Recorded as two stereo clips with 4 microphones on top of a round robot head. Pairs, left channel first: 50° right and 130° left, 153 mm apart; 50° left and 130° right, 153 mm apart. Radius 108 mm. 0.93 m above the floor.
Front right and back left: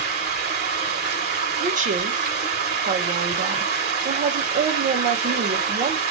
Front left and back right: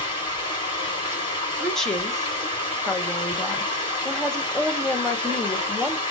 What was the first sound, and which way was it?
Running water, 105° left.